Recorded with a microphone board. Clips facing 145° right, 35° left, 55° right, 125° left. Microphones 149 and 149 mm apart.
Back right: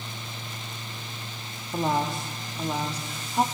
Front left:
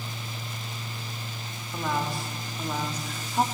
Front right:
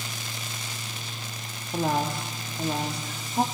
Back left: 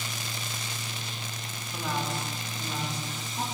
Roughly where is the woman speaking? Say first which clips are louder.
Back right 4 dB, front right 6 dB; right.